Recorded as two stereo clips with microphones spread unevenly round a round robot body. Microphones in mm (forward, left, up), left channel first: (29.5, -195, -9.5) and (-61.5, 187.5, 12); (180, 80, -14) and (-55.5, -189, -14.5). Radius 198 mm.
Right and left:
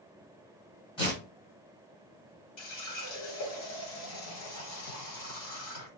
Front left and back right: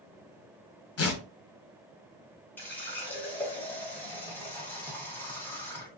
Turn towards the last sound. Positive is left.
turn(degrees=-35)